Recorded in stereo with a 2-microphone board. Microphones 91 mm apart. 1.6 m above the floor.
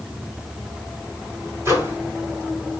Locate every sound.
1.6 s a microwave: 30° right (ahead or behind), 6.5 m